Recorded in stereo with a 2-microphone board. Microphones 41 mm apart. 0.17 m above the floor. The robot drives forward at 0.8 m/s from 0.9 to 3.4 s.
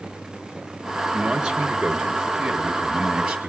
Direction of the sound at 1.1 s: 15° right (ahead or behind).